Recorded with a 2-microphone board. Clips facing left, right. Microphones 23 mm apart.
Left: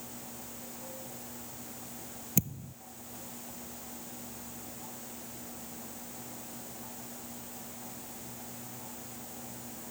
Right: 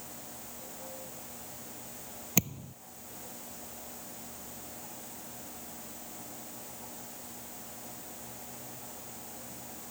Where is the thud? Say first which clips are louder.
Right 2 dB; 40° right (ahead or behind).